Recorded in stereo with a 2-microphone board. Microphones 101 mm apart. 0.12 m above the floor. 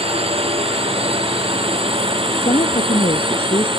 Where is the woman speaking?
70° left (ahead or behind).